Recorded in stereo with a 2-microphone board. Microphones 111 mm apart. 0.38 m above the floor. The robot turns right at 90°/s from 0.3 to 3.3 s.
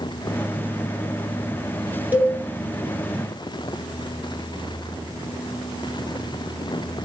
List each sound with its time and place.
2.1 s a cowbell: 15° right (ahead or behind), 2.5 m; by 2.3 s centre (ahead or behind), 2.5 m